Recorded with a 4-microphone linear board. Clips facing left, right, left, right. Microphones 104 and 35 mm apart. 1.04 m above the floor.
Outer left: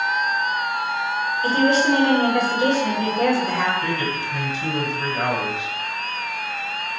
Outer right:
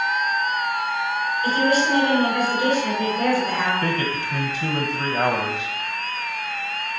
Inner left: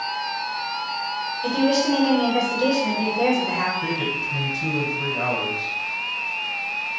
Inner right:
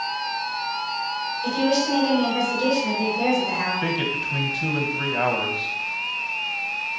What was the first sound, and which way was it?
A woman speaking, 30° left (ahead or behind).